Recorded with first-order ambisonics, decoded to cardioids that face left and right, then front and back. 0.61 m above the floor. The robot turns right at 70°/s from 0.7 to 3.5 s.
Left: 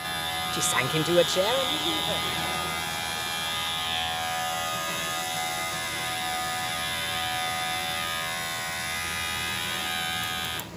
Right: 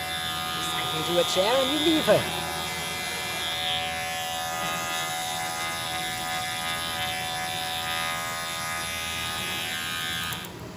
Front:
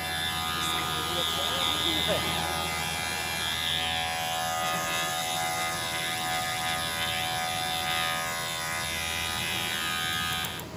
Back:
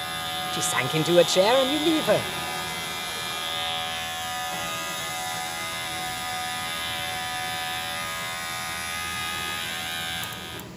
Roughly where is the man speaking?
Behind left.